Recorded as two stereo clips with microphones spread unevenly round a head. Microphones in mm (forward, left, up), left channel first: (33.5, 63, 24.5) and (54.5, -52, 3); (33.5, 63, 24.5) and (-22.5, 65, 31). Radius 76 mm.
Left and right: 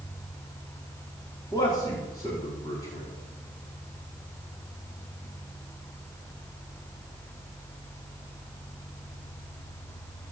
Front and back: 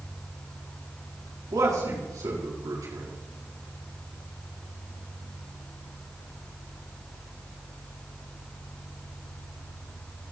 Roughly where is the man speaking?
Behind.